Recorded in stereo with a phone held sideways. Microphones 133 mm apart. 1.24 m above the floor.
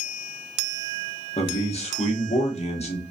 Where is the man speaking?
55° left (ahead or behind), 0.9 m.